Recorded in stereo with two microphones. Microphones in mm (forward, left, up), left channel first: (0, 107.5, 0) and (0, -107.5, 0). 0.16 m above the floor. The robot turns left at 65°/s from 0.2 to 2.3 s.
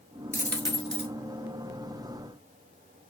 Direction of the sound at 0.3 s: 40° right.